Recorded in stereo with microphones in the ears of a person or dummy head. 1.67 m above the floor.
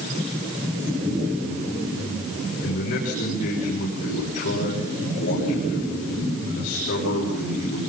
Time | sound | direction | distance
2.6 | a man speaking | 55° left (ahead or behind) | 6.5 m